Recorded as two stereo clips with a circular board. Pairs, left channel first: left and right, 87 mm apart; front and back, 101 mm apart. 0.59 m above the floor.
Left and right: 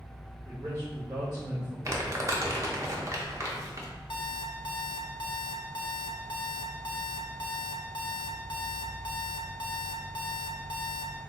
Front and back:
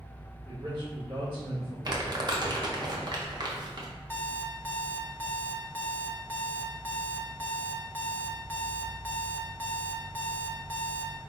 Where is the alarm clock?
70° left, 0.5 m.